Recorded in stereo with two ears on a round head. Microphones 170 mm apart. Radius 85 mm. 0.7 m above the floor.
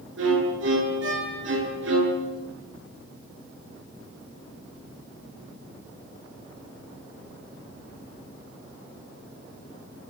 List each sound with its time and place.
0.2 s a violin: 75° right (ahead or behind), 8.5 m